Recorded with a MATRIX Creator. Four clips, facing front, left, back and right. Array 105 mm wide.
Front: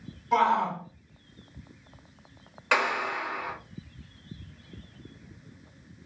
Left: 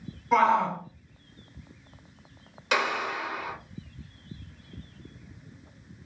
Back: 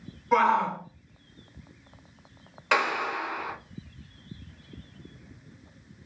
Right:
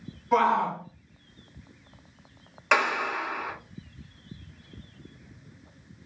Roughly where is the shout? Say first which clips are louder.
Left 1 dB, back 1 dB; behind.